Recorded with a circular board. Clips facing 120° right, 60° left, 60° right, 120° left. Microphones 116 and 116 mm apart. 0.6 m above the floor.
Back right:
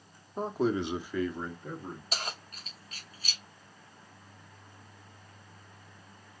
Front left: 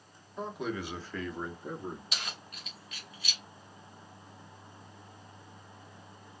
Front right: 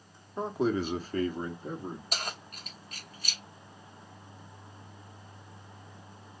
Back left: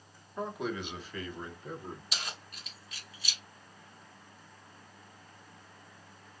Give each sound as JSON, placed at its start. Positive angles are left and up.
{"t": 0.4, "sound": "a man speaking", "azimuth_deg": -115, "distance_m": 1.0}
{"t": 2.1, "sound": "keys jangling", "azimuth_deg": -85, "distance_m": 0.8}